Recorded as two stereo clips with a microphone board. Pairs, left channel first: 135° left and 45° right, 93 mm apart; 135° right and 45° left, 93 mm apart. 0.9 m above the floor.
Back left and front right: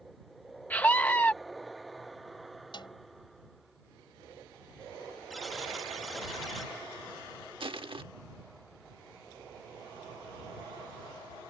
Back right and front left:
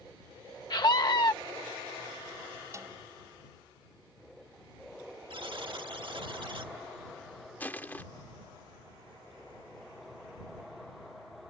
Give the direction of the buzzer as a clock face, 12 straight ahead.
11 o'clock.